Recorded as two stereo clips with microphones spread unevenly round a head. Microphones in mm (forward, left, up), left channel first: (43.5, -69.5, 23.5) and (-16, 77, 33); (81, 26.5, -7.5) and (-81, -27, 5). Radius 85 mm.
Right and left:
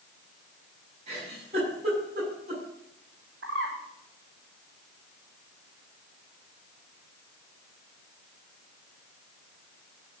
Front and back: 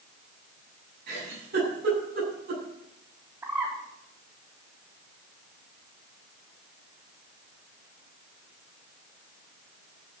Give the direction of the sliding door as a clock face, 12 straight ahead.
No sliding door in this recording.